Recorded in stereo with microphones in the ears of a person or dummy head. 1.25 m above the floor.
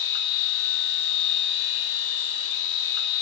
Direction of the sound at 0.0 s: 65° left (ahead or behind).